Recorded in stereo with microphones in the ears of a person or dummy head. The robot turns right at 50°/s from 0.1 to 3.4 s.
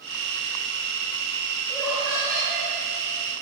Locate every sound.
1.7 s laughter: 170° left, 6 m; by 2.7 s 140° right, 6 m